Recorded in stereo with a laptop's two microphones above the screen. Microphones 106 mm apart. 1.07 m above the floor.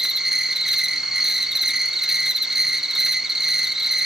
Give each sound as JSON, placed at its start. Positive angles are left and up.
{"t": 0.0, "sound": "an insect", "side_deg": -5, "distance_m": 1.1}